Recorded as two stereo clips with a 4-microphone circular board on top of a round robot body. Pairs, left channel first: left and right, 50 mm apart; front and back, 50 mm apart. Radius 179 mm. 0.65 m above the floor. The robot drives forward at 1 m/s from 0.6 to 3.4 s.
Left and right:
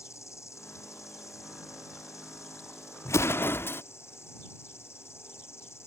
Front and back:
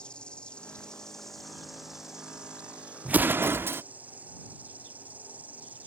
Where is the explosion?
115° left; by 3.8 s 135° left.